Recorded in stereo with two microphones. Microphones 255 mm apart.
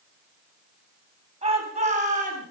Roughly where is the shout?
Right.